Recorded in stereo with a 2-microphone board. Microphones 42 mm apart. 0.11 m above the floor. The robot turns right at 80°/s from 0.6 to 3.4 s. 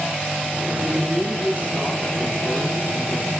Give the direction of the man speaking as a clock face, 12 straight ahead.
4 o'clock.